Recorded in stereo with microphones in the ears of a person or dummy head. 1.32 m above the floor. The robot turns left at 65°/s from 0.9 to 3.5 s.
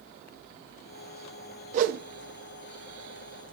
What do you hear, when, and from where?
1.7 s a whoosh: 40° right (ahead or behind), 0.5 m; by 2.0 s 60° right (ahead or behind), 0.5 m